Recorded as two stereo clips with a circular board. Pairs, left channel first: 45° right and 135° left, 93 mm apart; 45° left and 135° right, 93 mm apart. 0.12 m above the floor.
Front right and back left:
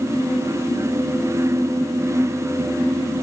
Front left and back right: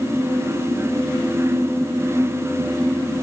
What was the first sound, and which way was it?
Only background noise.